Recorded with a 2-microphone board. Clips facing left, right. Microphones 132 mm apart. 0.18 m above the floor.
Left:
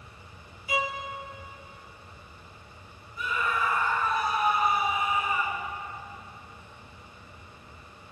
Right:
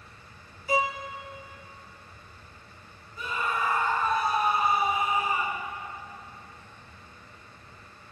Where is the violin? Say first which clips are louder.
Right 4 dB; 40° right (ahead or behind), 1.9 m.